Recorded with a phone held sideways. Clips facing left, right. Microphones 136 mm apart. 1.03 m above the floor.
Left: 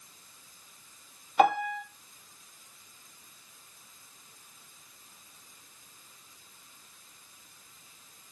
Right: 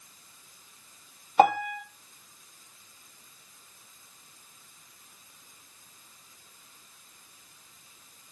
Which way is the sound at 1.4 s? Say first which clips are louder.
Right 2 dB; 40° right (ahead or behind).